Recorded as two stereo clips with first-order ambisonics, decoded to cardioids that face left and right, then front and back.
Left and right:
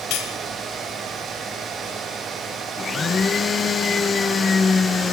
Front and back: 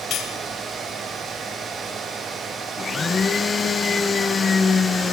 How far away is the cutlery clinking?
About 2.5 m.